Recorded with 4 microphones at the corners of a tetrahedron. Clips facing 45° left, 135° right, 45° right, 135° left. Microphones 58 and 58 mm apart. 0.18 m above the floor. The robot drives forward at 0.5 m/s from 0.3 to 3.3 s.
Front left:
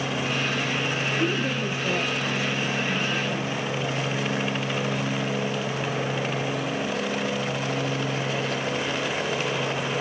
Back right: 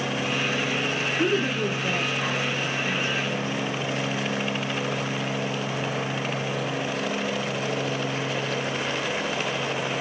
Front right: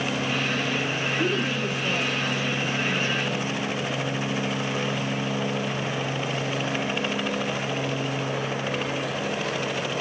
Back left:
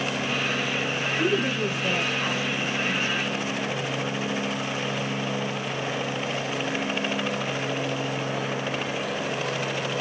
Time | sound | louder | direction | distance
1.2 | a woman speaking | back right 5 dB, back left 3 dB | 155° right | 3 m